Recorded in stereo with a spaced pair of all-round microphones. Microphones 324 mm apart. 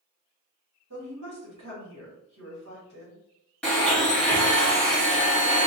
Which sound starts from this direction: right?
A woman speaking, at 0.9 s.